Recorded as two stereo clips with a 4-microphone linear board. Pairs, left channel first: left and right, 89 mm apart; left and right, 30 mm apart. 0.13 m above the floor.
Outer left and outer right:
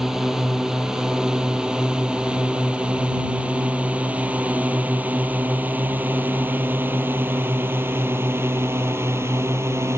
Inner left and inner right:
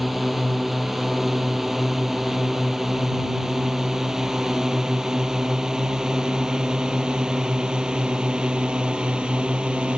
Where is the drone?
5° right (ahead or behind); by 10.0 s 30° right (ahead or behind).